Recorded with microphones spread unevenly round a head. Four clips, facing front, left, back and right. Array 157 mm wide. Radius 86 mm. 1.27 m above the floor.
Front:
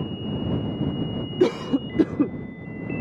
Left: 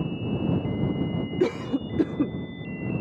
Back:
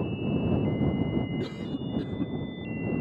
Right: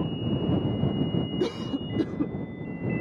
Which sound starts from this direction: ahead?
A cough, at 1.4 s.